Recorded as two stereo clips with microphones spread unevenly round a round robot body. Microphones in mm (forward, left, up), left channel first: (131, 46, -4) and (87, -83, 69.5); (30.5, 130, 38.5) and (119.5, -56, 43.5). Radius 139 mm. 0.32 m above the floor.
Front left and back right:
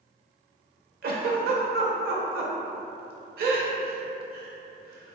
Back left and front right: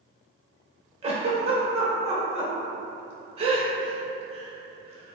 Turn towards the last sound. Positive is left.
turn(degrees=-110)